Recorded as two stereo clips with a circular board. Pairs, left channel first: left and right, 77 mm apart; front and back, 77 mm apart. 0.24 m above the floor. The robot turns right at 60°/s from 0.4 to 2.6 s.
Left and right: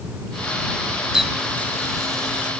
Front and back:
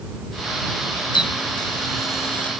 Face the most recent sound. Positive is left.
turn(degrees=80)